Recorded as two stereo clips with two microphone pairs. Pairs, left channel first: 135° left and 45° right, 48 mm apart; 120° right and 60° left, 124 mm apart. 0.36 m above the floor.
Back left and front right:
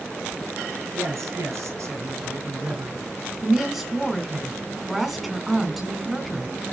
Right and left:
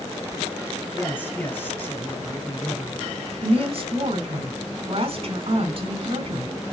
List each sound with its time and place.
0.9 s a man speaking: 50° right, 3 m
3.4 s a woman speaking: 40° left, 2 m